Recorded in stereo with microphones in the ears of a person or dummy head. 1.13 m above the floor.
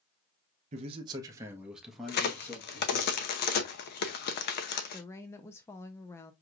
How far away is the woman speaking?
About 0.5 m.